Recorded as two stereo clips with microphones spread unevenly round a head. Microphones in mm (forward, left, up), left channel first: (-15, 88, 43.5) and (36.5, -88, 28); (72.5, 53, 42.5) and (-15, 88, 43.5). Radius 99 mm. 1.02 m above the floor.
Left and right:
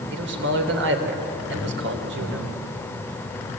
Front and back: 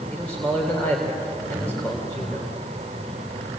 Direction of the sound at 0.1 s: 100° right.